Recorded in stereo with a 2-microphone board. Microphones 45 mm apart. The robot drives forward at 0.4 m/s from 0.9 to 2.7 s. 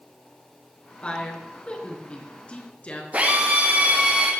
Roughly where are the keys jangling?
I don't hear keys jangling.